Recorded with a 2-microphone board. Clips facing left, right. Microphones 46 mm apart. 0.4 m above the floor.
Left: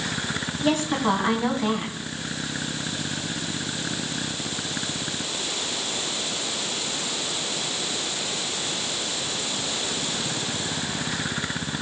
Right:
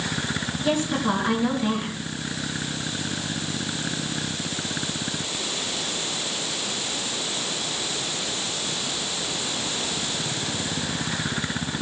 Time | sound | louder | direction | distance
0.6 | a woman speaking | left 1 dB | 65° left (ahead or behind) | 4 m